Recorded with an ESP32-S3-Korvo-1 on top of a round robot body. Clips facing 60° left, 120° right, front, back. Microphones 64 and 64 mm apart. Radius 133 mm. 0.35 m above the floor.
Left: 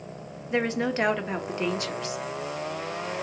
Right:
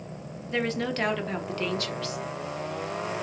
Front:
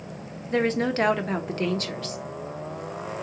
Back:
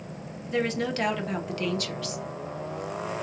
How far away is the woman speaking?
About 1.0 m.